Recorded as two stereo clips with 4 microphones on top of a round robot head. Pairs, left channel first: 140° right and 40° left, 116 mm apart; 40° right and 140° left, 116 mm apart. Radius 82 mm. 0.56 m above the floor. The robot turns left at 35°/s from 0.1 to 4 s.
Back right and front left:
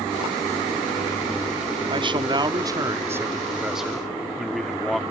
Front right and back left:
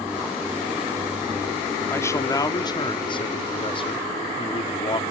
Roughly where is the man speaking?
Ahead left.